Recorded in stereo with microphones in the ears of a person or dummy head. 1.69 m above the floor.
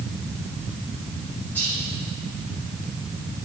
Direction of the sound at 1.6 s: 10° left (ahead or behind).